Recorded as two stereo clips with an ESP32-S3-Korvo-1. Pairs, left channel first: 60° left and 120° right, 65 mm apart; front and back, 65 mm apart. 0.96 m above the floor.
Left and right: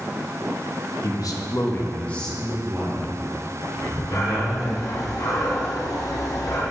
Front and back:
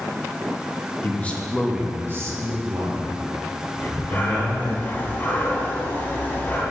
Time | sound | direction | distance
1.0 | a man speaking | 55° left | 1.1 m
3.8 | breathing | 65° left | 2.0 m